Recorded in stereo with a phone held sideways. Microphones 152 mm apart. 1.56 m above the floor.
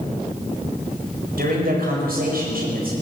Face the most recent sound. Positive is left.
turn(degrees=-85)